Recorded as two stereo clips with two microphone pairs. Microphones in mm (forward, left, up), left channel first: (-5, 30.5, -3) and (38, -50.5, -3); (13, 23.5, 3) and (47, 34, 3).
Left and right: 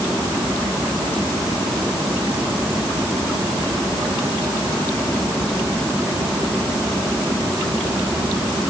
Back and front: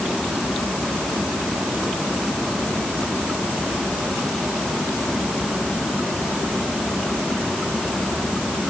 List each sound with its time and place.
Only background noise.